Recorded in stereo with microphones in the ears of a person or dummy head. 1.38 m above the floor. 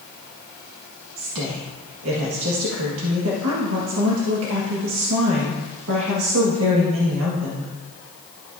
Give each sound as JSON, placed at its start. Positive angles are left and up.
{"t": 1.2, "sound": "a woman speaking", "side_deg": -80, "distance_m": 1.6}